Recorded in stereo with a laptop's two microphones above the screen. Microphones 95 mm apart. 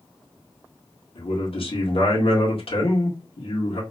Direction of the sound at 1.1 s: 70° left (ahead or behind).